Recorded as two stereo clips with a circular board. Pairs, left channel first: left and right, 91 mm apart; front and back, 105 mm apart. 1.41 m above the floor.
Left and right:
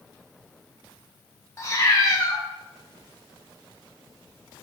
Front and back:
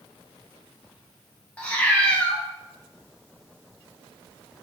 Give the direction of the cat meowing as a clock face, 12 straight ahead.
10 o'clock.